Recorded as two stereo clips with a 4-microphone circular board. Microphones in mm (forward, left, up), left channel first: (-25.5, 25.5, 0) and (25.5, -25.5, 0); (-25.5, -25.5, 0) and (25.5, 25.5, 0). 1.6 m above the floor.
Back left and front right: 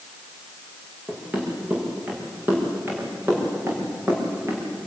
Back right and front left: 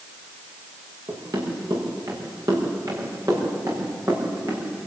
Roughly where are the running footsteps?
Ahead.